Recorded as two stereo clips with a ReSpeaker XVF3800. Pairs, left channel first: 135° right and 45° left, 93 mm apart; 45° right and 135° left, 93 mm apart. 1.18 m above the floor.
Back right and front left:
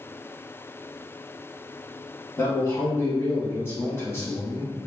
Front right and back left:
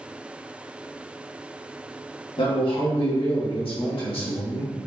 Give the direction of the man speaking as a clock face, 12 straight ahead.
2 o'clock.